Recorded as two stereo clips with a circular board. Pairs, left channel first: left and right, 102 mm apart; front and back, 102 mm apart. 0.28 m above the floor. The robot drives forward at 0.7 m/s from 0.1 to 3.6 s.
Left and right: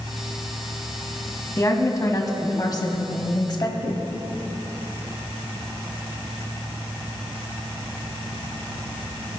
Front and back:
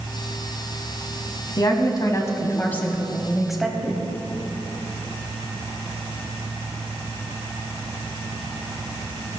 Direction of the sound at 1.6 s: 35° left.